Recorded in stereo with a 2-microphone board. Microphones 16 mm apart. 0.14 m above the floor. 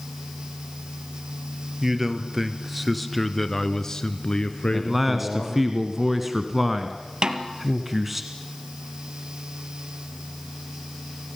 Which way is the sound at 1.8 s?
20° right (ahead or behind).